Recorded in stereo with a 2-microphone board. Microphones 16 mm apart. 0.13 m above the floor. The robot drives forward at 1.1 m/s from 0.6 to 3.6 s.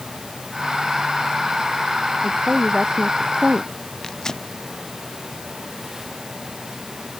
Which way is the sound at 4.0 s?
40° left (ahead or behind).